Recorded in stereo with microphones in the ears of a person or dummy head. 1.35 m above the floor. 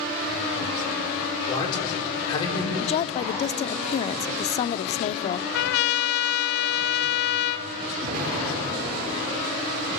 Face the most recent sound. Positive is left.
turn(degrees=-55)  # may be behind; listen again after turning